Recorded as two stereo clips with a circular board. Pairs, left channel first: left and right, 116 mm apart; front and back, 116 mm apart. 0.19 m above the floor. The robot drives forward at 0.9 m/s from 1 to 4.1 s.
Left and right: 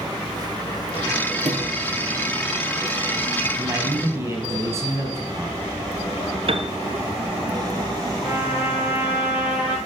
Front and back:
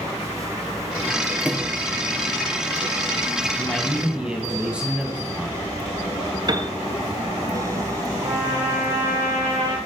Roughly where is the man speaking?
Ahead right.